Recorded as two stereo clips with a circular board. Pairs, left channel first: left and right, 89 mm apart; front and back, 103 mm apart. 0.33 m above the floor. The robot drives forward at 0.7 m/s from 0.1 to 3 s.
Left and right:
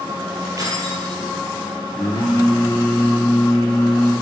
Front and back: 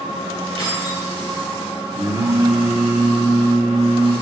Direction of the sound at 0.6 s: 140° right.